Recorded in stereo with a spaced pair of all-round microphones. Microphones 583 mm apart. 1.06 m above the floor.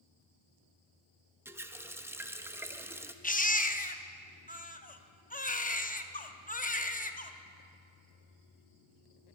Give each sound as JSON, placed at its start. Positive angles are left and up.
{"t": 1.4, "sound": "a running tap", "side_deg": -5, "distance_m": 0.5}
{"t": 3.2, "sound": "a baby crying", "side_deg": 15, "distance_m": 0.5}